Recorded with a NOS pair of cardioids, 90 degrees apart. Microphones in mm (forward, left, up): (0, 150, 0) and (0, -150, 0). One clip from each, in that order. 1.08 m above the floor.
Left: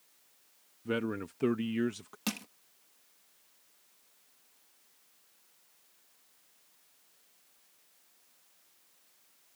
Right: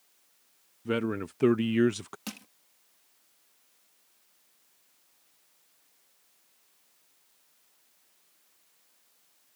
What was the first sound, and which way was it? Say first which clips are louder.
A man speaking: right 4 dB; 20° right.